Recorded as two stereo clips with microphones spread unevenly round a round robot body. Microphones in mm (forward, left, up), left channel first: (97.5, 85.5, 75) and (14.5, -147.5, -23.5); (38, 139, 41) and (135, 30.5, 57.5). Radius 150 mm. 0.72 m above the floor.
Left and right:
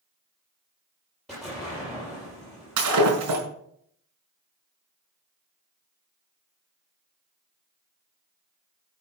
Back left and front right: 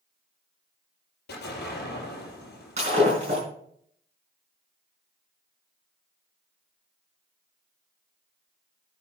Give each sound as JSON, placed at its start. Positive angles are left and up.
{"t": 1.3, "sound": "an explosion", "azimuth_deg": 155, "distance_m": 5.5}
{"t": 2.8, "sound": "breaking glass", "azimuth_deg": -115, "distance_m": 5.0}